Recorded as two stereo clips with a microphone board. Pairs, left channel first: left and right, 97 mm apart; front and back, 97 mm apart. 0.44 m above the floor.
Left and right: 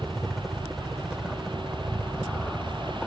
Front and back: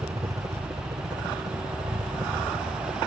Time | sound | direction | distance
0.0 | a helicopter | straight behind | ?